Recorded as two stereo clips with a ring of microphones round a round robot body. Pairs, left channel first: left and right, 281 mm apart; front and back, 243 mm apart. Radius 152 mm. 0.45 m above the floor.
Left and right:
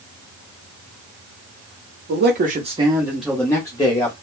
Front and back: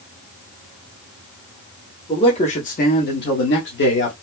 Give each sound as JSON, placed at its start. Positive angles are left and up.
{"t": 2.1, "sound": "a man speaking", "azimuth_deg": -65, "distance_m": 0.9}